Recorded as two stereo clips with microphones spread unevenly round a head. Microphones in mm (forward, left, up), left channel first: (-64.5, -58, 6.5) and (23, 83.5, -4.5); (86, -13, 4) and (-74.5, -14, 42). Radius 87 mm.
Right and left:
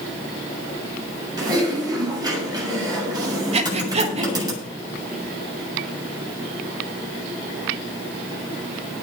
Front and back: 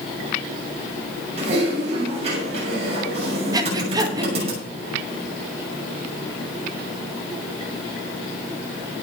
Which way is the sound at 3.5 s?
110° left.